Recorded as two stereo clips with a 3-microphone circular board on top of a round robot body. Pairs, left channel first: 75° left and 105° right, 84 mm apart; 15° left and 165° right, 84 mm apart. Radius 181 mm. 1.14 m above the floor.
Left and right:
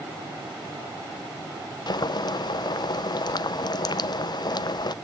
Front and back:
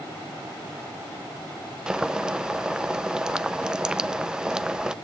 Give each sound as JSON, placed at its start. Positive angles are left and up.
{"t": 1.9, "sound": "boiling", "azimuth_deg": 115, "distance_m": 0.7}